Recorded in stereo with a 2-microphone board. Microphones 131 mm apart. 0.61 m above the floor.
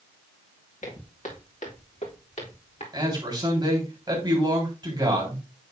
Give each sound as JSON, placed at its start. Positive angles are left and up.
{"t": 0.8, "sound": "footsteps", "side_deg": 65, "distance_m": 3.5}
{"t": 2.9, "sound": "a man speaking", "side_deg": -35, "distance_m": 3.5}